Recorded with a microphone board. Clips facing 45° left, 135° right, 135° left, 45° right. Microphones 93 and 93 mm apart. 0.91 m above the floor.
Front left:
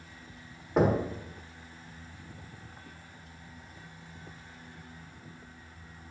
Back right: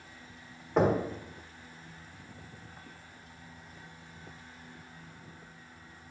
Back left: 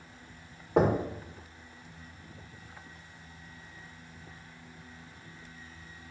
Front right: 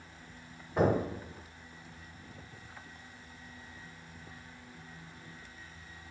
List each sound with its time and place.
0.8 s knocking: 130° left, 1.1 m